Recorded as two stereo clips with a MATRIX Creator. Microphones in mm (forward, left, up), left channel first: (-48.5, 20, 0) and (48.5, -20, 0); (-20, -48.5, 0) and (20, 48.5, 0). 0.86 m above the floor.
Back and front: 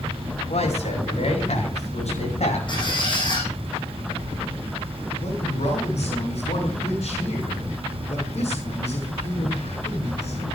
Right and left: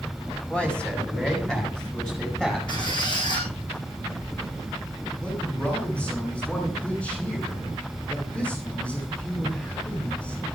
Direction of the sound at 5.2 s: 170° left.